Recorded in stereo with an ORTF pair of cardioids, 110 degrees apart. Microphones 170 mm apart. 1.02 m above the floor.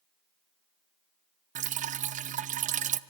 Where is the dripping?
50° right, 0.5 m.